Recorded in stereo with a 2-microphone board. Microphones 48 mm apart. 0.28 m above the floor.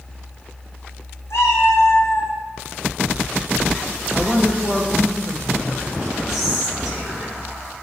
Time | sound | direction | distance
1.3 | a cat meowing | 75° left (ahead or behind) | 1.7 m
4.1 | a woman speaking | 35° left (ahead or behind) | 1.6 m
6.3 | whispering | 15° right (ahead or behind) | 4 m